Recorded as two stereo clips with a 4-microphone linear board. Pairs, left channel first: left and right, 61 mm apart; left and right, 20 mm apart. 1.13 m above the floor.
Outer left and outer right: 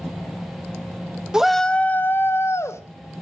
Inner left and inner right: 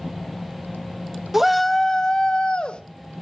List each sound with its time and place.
1.3 s a shout: 15° right (ahead or behind), 0.7 m; by 2.8 s 50° left (ahead or behind), 1.6 m